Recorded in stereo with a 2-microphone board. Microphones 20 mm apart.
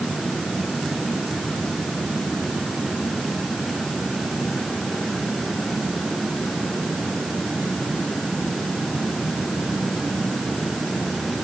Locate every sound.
Only background noise.